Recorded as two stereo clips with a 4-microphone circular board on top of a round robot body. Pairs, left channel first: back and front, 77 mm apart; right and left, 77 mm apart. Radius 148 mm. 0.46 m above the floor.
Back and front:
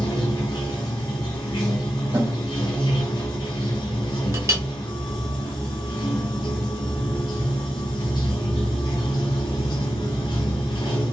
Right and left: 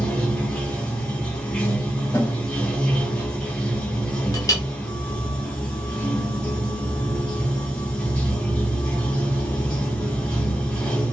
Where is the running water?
165° right, 1.2 m.